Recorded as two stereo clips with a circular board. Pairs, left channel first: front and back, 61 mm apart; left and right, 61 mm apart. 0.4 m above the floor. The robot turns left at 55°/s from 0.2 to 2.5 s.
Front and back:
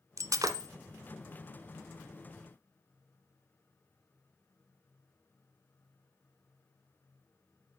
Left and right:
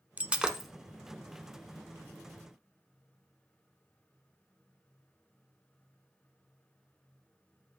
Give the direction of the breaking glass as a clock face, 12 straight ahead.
5 o'clock.